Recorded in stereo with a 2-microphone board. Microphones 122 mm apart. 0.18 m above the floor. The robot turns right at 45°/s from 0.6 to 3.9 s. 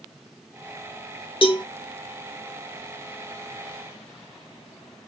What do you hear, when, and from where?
1.4 s a cowbell: 50° left (ahead or behind), 0.5 m; by 1.6 s 35° left (ahead or behind), 0.5 m